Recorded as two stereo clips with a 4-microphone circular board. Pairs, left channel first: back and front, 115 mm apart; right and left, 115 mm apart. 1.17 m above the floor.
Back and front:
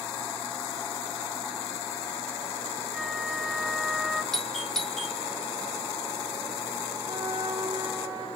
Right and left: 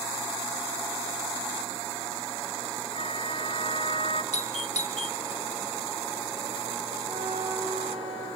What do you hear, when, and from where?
2.9 s a flute: 90° right, 1.6 m
4.3 s a doorbell: 95° right, 1.7 m
7.0 s a flute: 65° left, 9.5 m